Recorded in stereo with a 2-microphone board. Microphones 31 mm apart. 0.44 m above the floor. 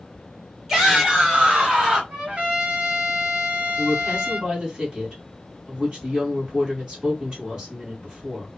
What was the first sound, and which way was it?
A shout, 15° right (ahead or behind).